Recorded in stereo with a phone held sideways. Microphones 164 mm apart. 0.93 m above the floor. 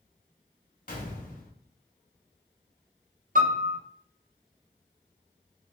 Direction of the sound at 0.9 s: 55° left (ahead or behind).